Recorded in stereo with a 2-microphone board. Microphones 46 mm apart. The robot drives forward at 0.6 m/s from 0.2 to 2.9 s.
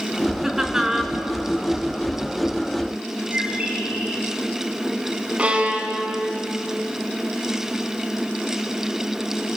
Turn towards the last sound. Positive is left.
turn(degrees=-25)  # may be behind; listen again after turning